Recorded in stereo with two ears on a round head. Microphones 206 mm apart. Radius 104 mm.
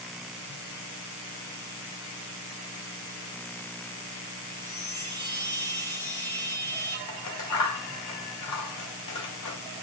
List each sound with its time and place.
4.5 s a chime: 10° left (ahead or behind), 3.5 m
7.1 s scissors: 80° left, 3 m